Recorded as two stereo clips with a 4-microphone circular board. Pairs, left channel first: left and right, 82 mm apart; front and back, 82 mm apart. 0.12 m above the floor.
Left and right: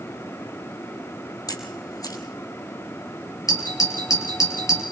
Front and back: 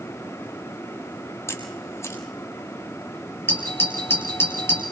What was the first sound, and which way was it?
A camera shutter, 55° left.